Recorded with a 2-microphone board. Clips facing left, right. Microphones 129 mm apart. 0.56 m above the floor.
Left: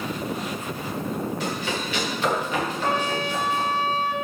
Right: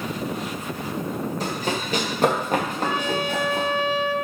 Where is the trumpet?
40° left (ahead or behind), 0.9 m.